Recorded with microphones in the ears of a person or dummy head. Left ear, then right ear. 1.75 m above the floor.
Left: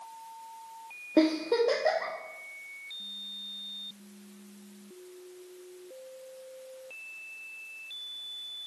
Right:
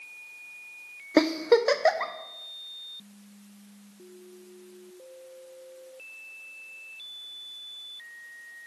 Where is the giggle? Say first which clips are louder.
Right 4 dB; 55° right (ahead or behind), 0.6 m.